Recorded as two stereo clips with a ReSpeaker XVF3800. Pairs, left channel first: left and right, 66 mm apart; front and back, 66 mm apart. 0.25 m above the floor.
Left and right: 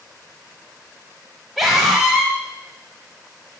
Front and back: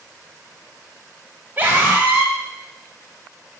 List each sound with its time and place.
1.6 s a scream: 175° right, 1.0 m